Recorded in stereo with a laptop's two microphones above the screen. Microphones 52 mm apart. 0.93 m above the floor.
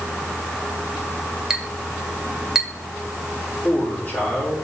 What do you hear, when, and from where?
1.5 s a clink: 10° right (ahead or behind), 2 m
3.6 s a man speaking: 35° left (ahead or behind), 3.5 m